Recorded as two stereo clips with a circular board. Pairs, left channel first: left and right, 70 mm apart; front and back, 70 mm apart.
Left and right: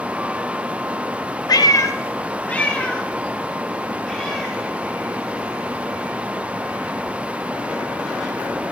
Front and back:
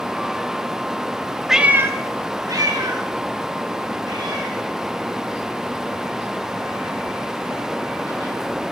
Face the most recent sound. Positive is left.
turn(degrees=180)